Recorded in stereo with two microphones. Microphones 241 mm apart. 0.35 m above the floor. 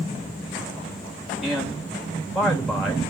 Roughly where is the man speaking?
Centre.